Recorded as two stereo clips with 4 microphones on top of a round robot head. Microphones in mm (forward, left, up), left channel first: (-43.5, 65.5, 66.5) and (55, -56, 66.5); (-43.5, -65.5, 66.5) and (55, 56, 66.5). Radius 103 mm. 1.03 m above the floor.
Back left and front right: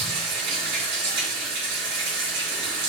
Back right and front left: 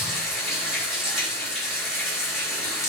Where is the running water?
35° right, 3 m.